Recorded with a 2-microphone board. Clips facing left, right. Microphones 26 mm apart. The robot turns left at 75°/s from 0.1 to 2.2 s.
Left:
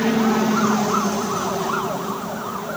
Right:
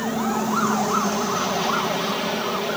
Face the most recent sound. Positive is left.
turn(degrees=-95)